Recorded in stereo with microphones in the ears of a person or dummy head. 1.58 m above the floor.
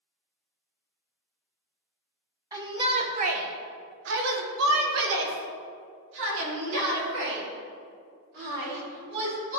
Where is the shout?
20° right (ahead or behind), 1.3 m; by 9.6 s 55° right (ahead or behind), 4.5 m.